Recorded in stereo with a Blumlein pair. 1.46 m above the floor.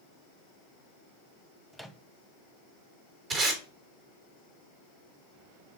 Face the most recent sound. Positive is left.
turn(degrees=-35)